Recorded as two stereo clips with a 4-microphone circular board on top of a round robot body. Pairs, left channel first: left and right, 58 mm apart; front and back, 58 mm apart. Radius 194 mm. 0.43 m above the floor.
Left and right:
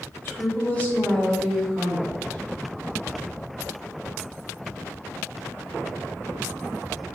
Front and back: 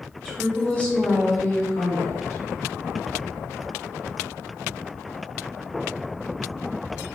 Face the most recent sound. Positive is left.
turn(degrees=-15)